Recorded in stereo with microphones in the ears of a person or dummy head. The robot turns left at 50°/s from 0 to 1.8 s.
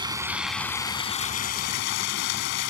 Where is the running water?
155° right; by 2.7 s 115° left.